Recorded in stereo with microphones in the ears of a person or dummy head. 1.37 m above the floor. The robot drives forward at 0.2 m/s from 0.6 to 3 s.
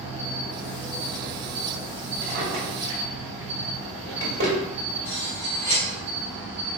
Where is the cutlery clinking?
20° left (ahead or behind), 1.3 m.